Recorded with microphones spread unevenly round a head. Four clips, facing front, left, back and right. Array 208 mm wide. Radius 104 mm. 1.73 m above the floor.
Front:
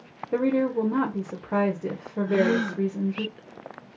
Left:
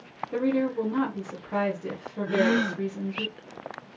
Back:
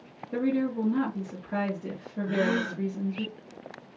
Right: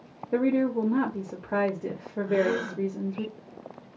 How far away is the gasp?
About 1.2 m.